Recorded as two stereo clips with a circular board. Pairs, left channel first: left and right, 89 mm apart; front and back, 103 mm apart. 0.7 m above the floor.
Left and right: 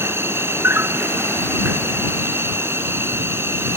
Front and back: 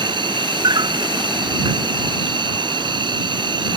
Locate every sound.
0.0 s an insect: 150° right